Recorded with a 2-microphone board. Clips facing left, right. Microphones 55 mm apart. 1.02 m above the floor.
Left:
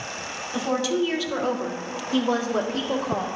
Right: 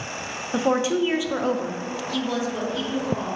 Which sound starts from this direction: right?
A woman speaking, at 0.5 s.